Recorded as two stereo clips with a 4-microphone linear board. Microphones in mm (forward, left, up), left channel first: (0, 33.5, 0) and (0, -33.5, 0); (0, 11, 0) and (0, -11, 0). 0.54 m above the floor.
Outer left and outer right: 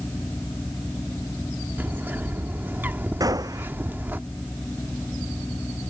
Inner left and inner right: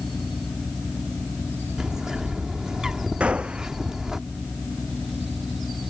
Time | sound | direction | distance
1.8 | a bird | 30° right (ahead or behind) | ?
3.2 | a gunshot | 70° right (ahead or behind) | ?